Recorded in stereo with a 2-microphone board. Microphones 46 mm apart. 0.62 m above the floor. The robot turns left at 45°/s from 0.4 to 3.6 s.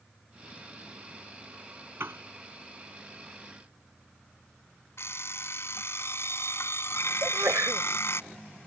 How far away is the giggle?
I don't hear a giggle.